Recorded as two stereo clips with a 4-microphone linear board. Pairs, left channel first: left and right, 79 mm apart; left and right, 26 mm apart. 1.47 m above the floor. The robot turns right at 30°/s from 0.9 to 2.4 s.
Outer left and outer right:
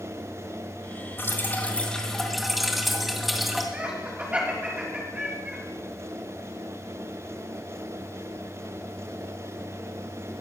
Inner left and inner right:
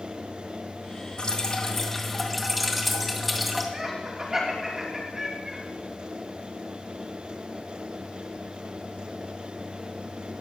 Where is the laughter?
20° right (ahead or behind), 3 m.